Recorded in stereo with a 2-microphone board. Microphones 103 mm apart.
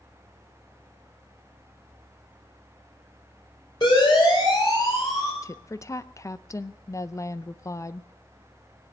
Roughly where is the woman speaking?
Left.